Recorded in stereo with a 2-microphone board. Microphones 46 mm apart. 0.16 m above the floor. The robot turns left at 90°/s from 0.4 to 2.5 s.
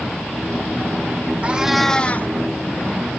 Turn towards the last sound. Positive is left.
turn(degrees=115)